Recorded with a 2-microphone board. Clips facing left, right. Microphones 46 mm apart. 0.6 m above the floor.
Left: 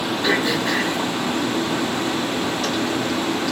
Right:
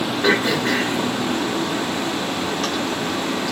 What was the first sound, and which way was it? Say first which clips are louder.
Throat clearing: right 2 dB; 55° right (ahead or behind).